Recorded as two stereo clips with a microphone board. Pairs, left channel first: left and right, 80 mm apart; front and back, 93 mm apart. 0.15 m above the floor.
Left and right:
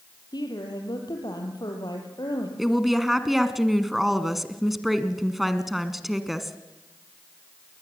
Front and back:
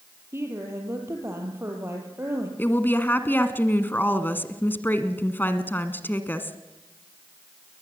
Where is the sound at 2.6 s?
5° right, 1.1 m.